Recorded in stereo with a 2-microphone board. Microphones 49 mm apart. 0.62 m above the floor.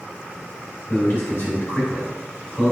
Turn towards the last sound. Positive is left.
turn(degrees=60)  # may be behind; listen again after turning